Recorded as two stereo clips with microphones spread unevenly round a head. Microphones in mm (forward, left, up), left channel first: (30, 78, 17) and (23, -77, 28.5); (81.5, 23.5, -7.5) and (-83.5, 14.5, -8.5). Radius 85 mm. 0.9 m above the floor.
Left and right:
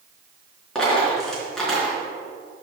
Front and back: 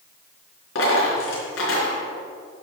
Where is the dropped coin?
Straight ahead, 4 m.